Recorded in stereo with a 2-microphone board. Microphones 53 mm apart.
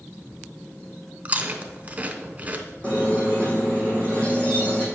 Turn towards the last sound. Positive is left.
turn(degrees=25)  # may be behind; listen again after turning